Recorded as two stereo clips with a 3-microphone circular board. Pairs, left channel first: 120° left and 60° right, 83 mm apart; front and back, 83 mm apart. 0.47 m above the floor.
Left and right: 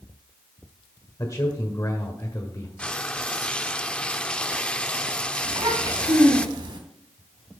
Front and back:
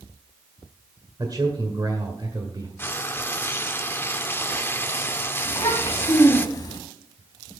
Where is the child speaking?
45° right, 3 m.